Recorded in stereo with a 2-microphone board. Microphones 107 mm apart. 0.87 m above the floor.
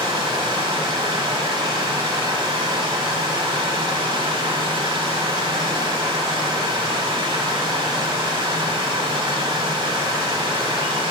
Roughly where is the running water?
Right.